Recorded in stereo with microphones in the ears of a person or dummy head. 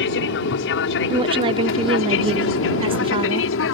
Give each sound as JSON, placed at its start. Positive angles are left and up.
{"t": 0.0, "sound": "an aircraft", "side_deg": 60}
{"t": 1.1, "sound": "a woman speaking", "side_deg": -20}